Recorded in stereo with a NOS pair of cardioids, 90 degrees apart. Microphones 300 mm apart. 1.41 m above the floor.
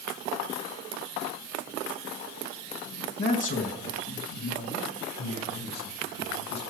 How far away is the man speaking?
About 2 m.